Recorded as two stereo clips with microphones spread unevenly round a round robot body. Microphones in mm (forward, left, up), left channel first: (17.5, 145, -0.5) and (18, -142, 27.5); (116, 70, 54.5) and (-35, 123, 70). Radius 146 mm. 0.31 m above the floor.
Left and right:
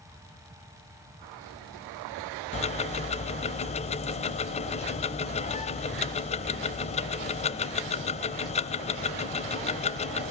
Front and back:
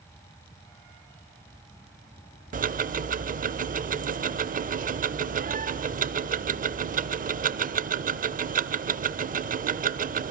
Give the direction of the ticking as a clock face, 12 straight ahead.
7 o'clock.